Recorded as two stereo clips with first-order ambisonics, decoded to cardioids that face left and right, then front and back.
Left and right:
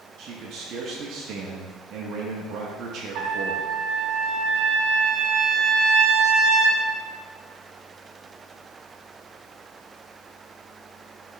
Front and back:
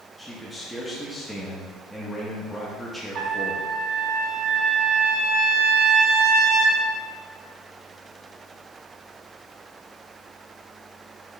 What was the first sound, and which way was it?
A man speaking, 85° right.